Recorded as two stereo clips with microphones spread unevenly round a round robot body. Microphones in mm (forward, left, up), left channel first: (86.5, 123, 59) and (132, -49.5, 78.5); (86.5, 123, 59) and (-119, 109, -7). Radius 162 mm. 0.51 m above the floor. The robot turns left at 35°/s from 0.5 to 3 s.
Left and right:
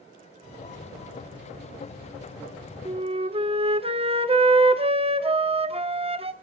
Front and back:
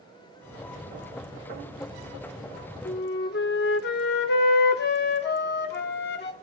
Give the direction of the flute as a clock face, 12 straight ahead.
1 o'clock.